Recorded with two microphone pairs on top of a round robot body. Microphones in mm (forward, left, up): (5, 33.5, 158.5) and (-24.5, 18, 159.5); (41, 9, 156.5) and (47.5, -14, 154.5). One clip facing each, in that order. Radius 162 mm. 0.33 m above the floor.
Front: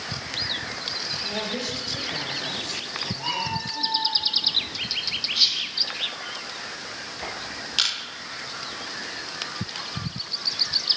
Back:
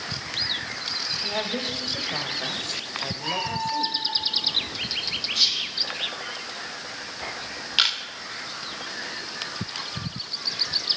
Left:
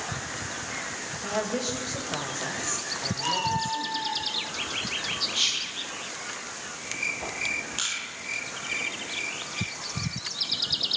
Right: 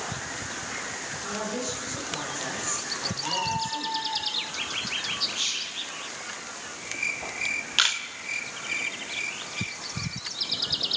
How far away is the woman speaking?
About 3.5 m.